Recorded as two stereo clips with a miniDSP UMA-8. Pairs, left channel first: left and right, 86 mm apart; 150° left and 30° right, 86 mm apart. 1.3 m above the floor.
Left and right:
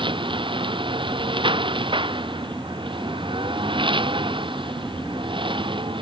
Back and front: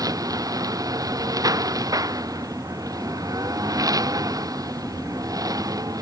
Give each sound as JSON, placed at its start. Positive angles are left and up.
{"t": 0.0, "sound": "a lawn mower", "azimuth_deg": -75}